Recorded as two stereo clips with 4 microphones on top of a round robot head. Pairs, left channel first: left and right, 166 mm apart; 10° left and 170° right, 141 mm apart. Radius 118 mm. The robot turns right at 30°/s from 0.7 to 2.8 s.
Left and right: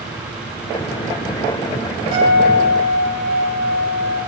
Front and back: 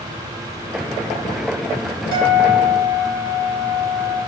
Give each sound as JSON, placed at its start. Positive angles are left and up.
{"t": 2.1, "sound": "a guitar", "azimuth_deg": -155, "distance_m": 1.7}